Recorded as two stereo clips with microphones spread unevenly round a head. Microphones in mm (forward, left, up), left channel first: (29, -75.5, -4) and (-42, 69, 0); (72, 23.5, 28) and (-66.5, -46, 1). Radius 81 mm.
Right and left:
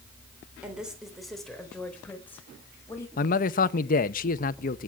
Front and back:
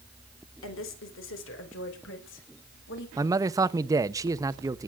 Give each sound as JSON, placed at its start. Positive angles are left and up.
{"t": 0.6, "sound": "a woman speaking", "azimuth_deg": 30, "distance_m": 3.5}
{"t": 3.2, "sound": "a man speaking", "azimuth_deg": -95, "distance_m": 0.8}